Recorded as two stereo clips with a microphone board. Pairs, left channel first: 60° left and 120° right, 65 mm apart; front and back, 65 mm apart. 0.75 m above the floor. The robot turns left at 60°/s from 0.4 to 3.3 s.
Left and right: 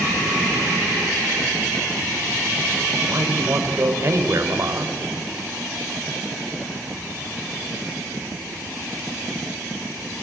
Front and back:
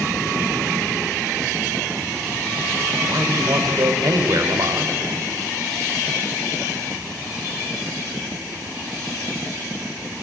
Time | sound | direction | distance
3.1 | a man speaking | 150° right | 3 m